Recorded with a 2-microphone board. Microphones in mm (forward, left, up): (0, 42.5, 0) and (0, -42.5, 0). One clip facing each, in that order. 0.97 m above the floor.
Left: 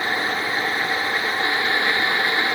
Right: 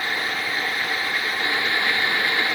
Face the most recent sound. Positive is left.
No sound to turn to.